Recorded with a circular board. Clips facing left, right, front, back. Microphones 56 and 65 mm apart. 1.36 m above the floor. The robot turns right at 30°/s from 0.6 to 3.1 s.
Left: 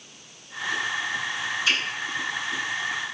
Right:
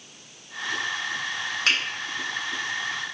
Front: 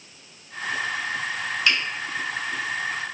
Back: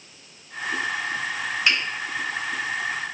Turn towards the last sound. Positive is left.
turn(degrees=-70)